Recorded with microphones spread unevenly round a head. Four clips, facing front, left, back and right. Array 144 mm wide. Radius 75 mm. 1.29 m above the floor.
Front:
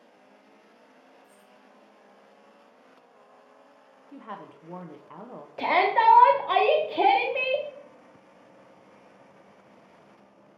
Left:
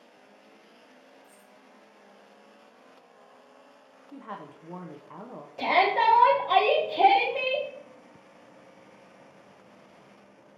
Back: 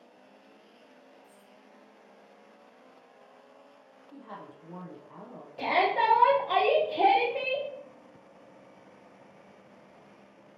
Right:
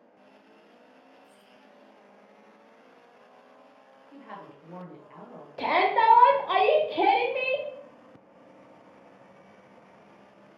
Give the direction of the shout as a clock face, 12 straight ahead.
1 o'clock.